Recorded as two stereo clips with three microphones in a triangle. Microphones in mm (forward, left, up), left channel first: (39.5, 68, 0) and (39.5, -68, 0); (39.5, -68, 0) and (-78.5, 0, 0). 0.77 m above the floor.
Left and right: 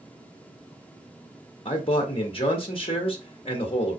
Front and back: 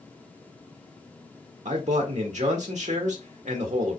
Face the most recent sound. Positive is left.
turn(degrees=130)